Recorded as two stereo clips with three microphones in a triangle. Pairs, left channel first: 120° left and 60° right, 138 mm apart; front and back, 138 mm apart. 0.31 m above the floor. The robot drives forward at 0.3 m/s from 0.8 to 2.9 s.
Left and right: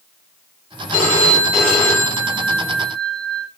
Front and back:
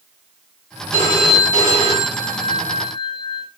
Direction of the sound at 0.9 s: 45° left.